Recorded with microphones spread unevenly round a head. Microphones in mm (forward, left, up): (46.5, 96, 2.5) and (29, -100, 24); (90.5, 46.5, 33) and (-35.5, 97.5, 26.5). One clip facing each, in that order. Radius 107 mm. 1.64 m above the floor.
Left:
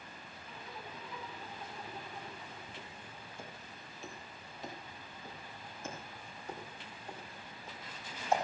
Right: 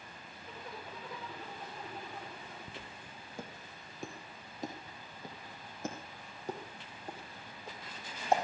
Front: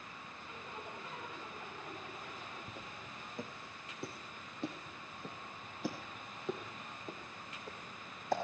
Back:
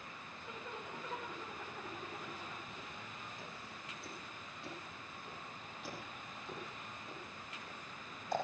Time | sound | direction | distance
0.4 | a zipper | 145° right | 6 m
2.7 | footsteps | 75° right | 2.5 m